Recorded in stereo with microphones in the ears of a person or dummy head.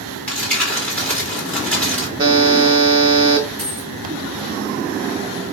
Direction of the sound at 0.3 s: 10° left (ahead or behind).